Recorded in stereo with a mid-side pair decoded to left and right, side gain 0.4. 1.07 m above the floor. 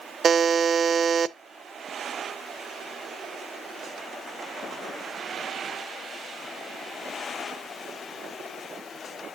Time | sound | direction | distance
0.2 | a buzzer | 50° right | 0.7 m